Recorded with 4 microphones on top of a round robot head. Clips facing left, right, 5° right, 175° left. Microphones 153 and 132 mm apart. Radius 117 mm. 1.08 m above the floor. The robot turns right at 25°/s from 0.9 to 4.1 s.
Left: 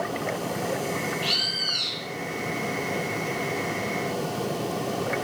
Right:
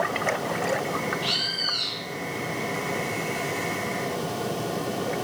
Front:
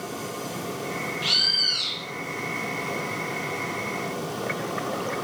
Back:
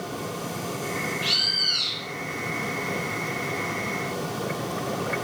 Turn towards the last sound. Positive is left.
turn(degrees=80)